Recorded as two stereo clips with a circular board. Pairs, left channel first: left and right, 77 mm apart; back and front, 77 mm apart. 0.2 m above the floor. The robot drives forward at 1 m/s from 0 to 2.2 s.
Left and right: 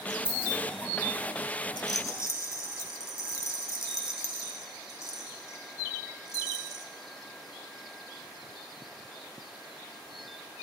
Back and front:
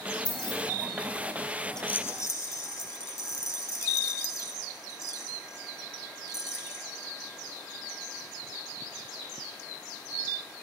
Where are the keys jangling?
155° left, 4 m.